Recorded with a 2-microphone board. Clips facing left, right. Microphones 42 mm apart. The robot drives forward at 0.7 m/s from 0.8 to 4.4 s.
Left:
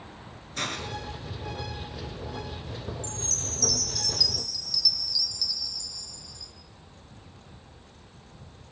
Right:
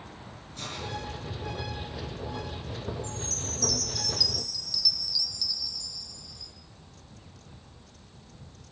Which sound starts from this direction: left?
A hiss, at 0.6 s.